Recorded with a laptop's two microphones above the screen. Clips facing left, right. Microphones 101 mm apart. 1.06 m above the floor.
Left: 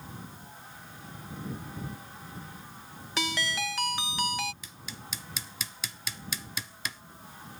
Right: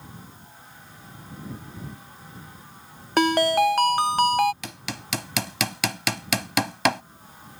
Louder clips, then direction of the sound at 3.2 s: Right 14 dB; 50° right (ahead or behind).